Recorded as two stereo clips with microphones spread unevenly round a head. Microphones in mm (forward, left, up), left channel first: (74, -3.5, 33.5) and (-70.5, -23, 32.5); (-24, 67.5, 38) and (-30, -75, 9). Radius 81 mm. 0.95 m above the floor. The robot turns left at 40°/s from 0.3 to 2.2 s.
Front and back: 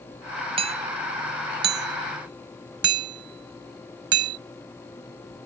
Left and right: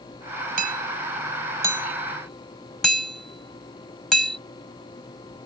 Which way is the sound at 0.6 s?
120° right.